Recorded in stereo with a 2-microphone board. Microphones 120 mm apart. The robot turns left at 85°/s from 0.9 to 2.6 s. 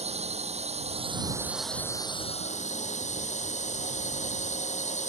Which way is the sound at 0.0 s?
120° right.